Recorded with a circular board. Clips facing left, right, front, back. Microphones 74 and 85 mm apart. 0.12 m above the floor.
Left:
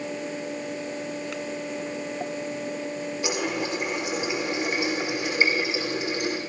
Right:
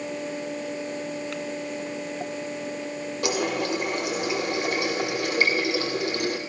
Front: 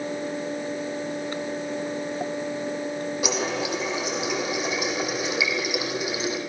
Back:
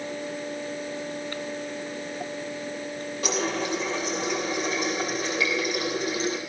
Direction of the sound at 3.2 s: 80° right.